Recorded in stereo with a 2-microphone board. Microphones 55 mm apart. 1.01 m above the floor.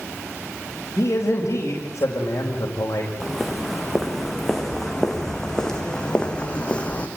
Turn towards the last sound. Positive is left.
turn(degrees=20)  # may be behind; listen again after turning